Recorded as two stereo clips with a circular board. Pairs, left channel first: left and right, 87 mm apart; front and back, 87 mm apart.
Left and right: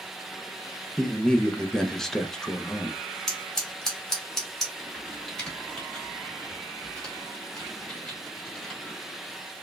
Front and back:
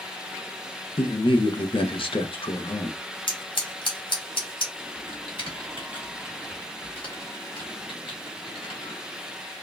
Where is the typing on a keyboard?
10° left, 1.7 m.